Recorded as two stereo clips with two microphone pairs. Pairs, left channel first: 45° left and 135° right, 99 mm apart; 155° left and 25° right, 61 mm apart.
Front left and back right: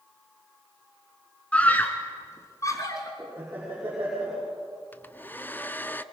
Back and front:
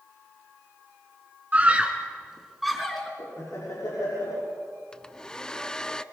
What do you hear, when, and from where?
1.5 s a scream: 15° right, 1.8 m; by 3.1 s 75° left, 2 m
3.2 s laughter: 160° left, 6 m
4.9 s a hair dryer: 95° left, 0.5 m